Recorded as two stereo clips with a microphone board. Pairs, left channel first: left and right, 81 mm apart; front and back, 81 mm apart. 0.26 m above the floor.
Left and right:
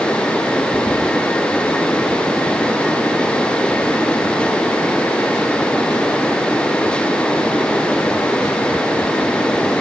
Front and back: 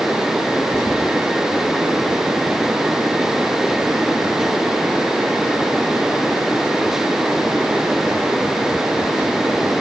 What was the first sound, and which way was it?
Only background noise.